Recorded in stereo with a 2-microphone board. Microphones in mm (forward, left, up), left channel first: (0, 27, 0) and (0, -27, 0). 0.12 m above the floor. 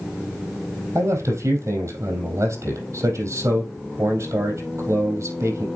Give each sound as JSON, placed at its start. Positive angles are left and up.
{"t": 0.9, "sound": "a man speaking", "side_deg": -70, "distance_m": 3.0}